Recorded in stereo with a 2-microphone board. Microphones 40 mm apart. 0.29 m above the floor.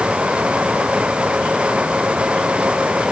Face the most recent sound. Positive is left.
No sound to turn to.